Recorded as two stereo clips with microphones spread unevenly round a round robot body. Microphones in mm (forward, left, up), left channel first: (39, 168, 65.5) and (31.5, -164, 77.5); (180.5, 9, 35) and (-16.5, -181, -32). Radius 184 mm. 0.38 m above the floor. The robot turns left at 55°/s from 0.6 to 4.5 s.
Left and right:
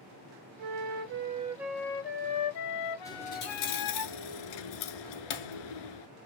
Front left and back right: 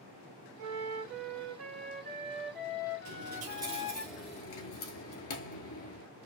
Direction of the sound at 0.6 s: 120° right.